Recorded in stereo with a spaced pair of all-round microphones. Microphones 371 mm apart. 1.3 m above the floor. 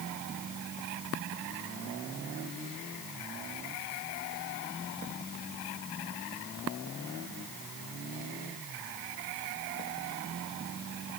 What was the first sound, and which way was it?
Only background noise.